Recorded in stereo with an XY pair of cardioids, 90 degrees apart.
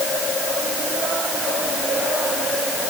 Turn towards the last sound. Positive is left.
No sound to turn to.